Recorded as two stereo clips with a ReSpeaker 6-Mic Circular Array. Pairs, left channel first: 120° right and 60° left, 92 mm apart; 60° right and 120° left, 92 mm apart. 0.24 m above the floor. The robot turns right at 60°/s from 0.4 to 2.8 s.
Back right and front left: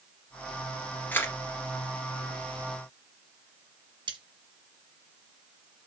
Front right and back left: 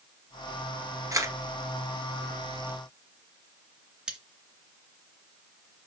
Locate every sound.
1.1 s a camera shutter: 170° left, 1.9 m; by 1.4 s 175° right, 1.9 m
4.1 s cutlery clinking: 40° left, 2.0 m